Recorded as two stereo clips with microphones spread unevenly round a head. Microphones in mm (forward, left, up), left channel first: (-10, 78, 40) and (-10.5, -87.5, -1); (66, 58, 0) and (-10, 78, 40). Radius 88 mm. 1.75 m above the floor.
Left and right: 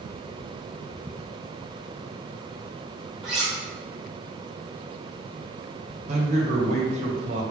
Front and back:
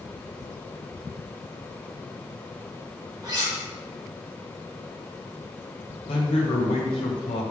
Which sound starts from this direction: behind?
Cutlery clinking, at 3.2 s.